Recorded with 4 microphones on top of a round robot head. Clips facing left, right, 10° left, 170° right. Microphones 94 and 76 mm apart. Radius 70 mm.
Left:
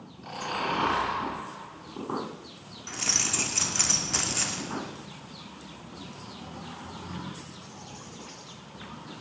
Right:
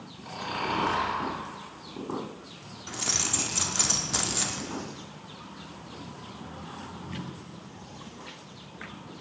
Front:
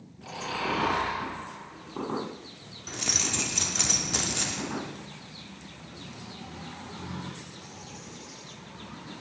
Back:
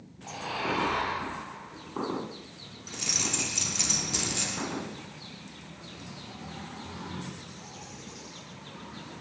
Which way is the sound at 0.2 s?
5° right.